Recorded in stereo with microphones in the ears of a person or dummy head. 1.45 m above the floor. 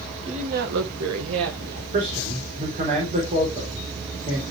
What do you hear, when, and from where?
0.2 s a woman speaking: 35° right (ahead or behind), 1.6 m; by 1.8 s 55° right (ahead or behind), 1.8 m
1.9 s a man speaking: 40° right (ahead or behind), 4 m